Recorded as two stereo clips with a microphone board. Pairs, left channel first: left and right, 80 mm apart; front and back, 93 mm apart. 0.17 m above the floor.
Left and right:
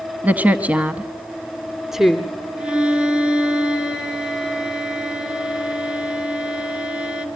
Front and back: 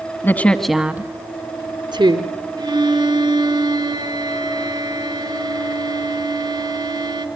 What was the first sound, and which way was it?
A woman speaking, 40° right.